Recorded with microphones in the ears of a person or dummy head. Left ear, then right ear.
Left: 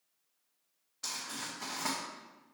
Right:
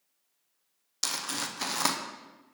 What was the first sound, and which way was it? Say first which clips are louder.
Crumpling: right 7 dB; 75° right (ahead or behind).